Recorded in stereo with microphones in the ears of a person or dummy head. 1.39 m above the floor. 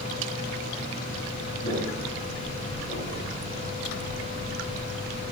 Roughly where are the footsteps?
Left.